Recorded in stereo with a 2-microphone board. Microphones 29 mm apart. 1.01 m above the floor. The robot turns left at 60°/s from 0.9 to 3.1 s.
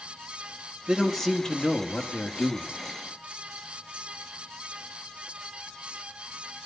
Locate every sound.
0.9 s a man speaking: 170° right, 1.8 m; by 2.7 s 80° left, 1.8 m